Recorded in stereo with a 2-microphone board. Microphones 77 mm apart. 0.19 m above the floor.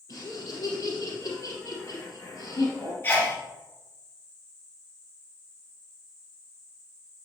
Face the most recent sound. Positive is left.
turn(degrees=30)  # may be behind; listen again after turning